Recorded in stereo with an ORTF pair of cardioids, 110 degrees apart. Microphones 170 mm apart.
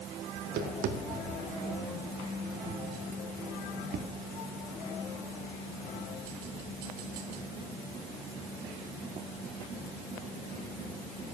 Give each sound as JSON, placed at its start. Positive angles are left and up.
{"t": 0.3, "sound": "tapping", "azimuth_deg": -70, "distance_m": 1.8}